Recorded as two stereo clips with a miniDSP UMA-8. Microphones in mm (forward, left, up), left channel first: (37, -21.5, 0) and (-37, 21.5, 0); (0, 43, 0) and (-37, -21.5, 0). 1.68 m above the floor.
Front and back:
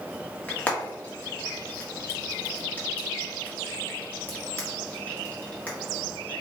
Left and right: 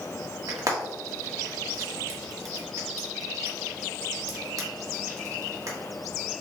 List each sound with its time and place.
0.5 s frying: 100° right, 1.5 m